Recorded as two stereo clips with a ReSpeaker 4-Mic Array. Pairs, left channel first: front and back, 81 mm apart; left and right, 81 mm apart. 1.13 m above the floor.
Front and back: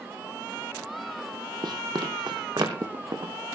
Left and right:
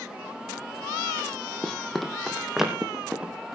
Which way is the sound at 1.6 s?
170° left.